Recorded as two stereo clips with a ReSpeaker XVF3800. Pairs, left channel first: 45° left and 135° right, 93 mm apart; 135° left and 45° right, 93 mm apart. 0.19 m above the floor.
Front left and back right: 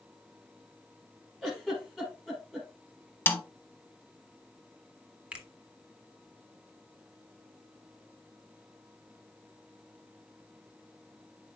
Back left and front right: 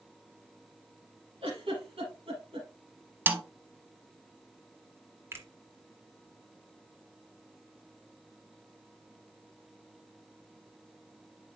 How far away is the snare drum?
About 0.7 m.